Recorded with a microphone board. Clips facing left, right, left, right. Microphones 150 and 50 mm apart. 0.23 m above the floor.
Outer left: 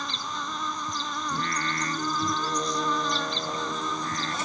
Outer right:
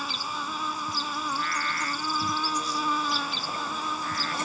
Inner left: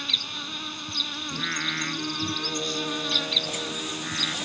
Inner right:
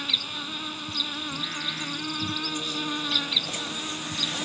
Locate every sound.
0.0 s an insect: 5° right (ahead or behind)
1.3 s singing: 40° left (ahead or behind)